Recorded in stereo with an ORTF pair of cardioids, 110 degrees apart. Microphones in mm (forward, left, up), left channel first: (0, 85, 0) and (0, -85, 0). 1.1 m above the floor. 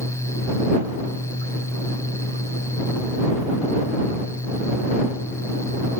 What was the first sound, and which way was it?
A fan, 15° left.